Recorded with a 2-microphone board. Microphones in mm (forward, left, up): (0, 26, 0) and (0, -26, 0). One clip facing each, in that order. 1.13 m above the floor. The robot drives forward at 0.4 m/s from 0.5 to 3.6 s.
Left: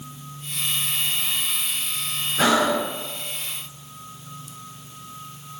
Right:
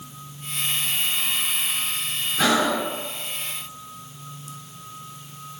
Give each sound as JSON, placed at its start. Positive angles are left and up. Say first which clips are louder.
{"t": 2.4, "sound": "breathing", "louder": "left 1 dB", "side_deg": 30, "distance_m": 0.8}